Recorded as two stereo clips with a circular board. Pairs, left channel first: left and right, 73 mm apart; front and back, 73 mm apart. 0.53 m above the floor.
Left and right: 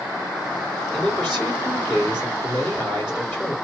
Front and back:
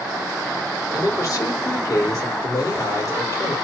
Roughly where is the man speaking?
Ahead.